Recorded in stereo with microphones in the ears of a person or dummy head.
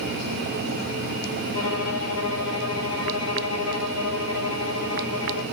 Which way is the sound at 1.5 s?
70° left (ahead or behind).